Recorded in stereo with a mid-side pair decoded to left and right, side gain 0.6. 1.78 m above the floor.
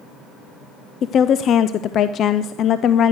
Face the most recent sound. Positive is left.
turn(degrees=50)